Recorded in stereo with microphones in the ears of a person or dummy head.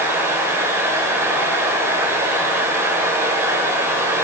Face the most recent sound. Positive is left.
turn(degrees=-20)  # may be behind; listen again after turning